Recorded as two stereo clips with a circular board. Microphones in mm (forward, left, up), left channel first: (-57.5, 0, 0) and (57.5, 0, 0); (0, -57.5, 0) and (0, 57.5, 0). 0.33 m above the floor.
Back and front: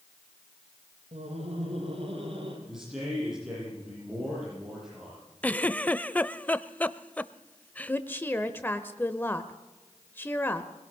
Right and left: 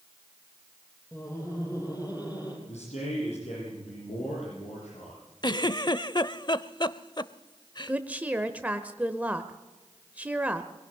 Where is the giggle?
110° right, 0.6 m.